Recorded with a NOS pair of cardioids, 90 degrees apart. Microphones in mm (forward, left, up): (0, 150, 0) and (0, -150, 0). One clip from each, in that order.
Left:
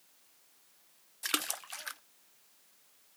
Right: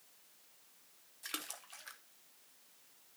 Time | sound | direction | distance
1.2 | a splash | 50° left | 0.6 m